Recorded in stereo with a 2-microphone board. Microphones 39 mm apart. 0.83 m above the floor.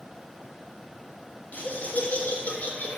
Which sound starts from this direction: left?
Laughter, at 1.5 s.